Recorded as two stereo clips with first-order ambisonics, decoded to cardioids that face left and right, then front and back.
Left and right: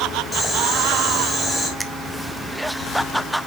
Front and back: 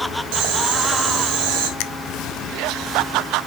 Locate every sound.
0.3 s boiling: 175° left, 2.5 m
1.8 s a finger snap: 10° right, 0.6 m